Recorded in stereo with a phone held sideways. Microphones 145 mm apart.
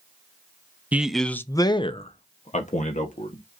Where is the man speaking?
10° right (ahead or behind), 0.6 m; by 3.4 s 65° left (ahead or behind), 1.3 m.